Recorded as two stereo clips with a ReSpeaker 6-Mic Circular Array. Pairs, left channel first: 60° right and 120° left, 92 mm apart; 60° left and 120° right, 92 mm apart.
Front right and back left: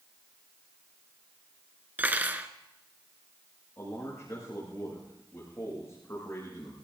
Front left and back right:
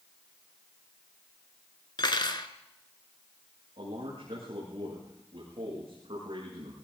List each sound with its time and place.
2.0 s cutlery clinking: 55° left, 1.0 m
3.8 s a man speaking: 120° right, 7.5 m